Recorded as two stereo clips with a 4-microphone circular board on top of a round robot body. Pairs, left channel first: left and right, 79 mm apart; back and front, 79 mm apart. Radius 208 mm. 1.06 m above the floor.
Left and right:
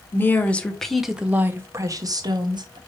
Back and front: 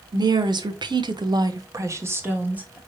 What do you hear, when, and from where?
0.1 s a woman speaking: 25° left, 1.6 m; by 2.8 s 75° right, 1.7 m